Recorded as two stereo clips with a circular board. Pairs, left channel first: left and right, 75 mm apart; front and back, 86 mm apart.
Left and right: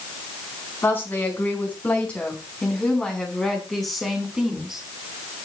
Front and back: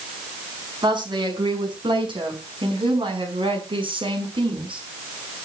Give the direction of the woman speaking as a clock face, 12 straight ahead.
7 o'clock.